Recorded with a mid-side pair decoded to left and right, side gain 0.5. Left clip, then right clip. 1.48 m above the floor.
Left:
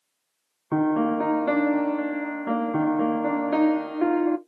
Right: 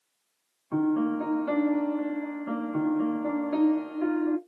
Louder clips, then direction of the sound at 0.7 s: Left 4 dB; 60° left.